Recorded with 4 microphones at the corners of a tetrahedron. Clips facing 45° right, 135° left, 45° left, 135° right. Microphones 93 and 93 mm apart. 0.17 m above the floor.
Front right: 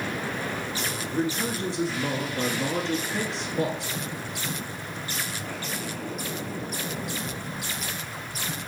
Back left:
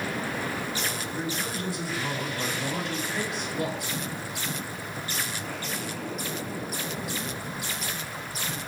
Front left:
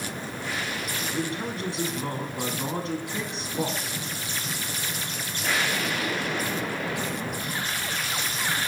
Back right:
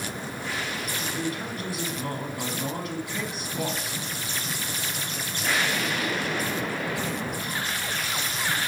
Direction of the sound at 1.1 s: Straight ahead.